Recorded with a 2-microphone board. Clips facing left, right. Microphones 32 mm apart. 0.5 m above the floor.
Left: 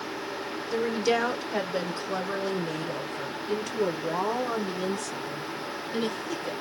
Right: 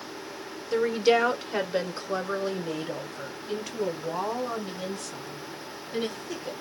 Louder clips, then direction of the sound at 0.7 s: Right 4 dB; 20° right (ahead or behind).